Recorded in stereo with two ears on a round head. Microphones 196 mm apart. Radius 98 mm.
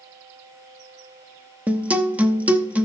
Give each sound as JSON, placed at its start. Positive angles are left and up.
{"t": 1.7, "sound": "a guitar", "side_deg": -5, "distance_m": 0.6}